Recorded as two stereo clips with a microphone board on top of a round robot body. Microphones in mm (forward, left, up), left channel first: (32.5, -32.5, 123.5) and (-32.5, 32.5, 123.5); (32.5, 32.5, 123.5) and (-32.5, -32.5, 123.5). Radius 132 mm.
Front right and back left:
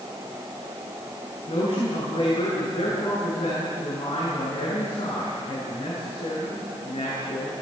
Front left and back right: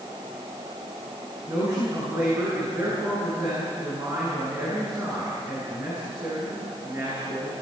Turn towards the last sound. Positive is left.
turn(degrees=-75)